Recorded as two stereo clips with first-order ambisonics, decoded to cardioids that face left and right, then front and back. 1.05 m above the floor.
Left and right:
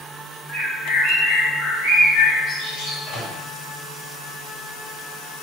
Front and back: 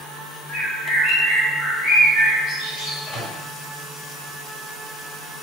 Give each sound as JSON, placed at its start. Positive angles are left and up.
{"t": 0.5, "sound": "a bird", "azimuth_deg": 50, "distance_m": 1.3}
{"t": 3.1, "sound": "a microwave", "azimuth_deg": 65, "distance_m": 1.8}